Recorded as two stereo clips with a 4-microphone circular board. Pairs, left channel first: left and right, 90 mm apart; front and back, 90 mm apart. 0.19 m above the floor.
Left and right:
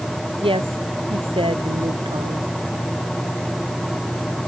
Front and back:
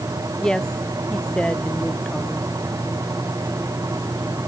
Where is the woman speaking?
80° right.